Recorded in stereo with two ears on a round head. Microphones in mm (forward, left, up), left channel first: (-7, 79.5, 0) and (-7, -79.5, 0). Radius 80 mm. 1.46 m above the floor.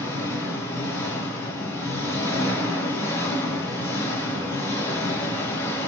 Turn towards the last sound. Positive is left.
turn(degrees=15)  # may be behind; listen again after turning